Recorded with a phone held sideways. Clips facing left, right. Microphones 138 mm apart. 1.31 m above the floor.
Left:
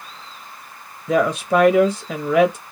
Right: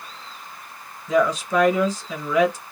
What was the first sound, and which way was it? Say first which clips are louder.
A woman speaking: left 2 dB; 60° left (ahead or behind).